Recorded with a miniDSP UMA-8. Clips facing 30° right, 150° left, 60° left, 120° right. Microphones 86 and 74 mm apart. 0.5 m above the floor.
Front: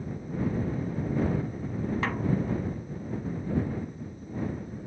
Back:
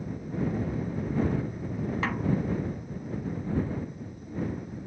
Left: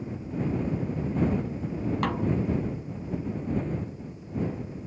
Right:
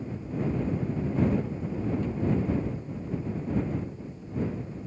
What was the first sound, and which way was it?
A snare drum, 60° left.